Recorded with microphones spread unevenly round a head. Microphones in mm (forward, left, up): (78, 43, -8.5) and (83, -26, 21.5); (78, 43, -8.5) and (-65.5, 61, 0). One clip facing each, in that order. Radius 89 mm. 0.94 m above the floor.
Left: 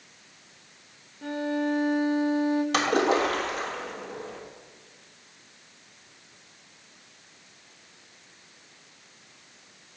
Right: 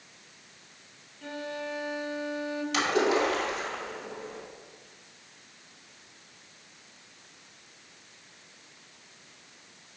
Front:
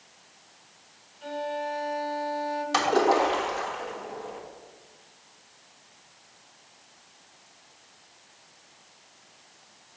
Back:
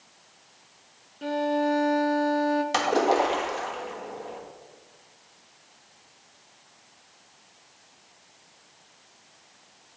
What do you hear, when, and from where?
1.2 s a violin: 150° left, 0.6 m
2.7 s a splash: 105° left, 1.4 m